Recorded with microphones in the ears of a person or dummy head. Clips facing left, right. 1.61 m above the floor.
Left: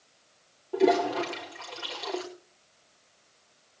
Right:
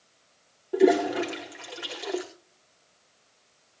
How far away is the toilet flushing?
About 4 m.